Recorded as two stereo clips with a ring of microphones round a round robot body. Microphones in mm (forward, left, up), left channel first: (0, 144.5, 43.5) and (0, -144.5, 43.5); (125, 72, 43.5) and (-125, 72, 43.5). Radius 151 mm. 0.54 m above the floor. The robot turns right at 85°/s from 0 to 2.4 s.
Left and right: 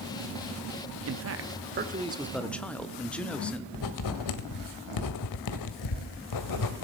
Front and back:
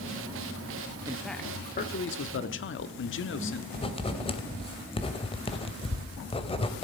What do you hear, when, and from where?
1.1 s a man speaking: 110° right, 1.1 m; by 3.6 s 5° left, 1.1 m
3.7 s writing: 70° left, 1.3 m